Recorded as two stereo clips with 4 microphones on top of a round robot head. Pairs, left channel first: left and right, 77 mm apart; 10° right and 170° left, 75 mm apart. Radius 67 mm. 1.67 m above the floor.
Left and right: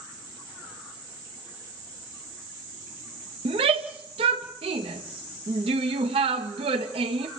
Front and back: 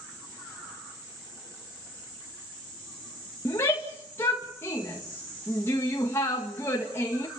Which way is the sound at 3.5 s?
75° right.